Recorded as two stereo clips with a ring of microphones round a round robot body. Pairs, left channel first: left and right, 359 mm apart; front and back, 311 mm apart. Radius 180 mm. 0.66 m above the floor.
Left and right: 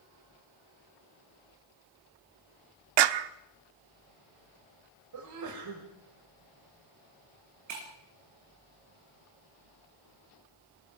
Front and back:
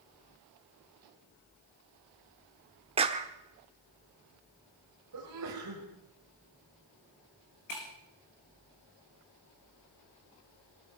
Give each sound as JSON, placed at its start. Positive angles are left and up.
{"t": 3.0, "sound": "a clap", "azimuth_deg": -105, "distance_m": 1.1}
{"t": 5.1, "sound": "a sneeze", "azimuth_deg": -130, "distance_m": 3.5}
{"t": 7.7, "sound": "breaking glass", "azimuth_deg": -45, "distance_m": 5.5}